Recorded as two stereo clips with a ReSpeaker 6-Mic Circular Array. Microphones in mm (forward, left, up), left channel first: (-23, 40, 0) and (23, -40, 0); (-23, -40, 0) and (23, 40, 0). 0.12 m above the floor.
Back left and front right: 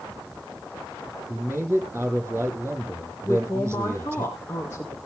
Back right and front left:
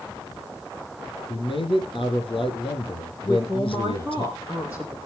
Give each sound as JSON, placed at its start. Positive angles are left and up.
{"t": 1.3, "sound": "a man speaking", "azimuth_deg": -125, "distance_m": 4.5}
{"t": 3.2, "sound": "a man speaking", "azimuth_deg": -175, "distance_m": 4.0}